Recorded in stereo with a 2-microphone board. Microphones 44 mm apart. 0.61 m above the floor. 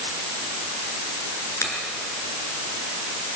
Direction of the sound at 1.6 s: 85° left.